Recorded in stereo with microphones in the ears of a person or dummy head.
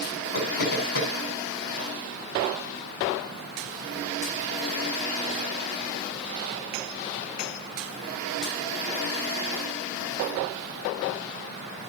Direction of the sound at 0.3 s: 45° left (ahead or behind).